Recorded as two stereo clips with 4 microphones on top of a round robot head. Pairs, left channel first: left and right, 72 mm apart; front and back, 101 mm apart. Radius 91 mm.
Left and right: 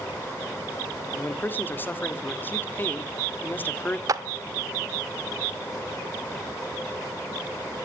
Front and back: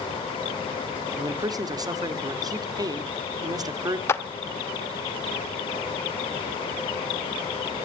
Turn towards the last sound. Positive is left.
turn(degrees=-60)